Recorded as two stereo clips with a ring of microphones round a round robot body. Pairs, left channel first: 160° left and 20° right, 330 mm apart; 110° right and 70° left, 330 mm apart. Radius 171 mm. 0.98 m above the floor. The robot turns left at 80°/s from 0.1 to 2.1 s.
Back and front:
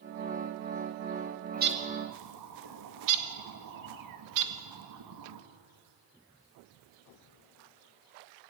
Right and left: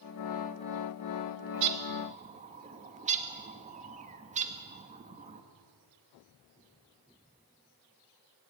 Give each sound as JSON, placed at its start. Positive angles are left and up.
{"t": 1.5, "sound": "a bird", "azimuth_deg": 45, "distance_m": 2.0}